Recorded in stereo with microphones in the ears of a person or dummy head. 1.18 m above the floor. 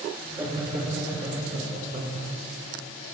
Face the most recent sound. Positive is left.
turn(degrees=-50)  # may be behind; listen again after turning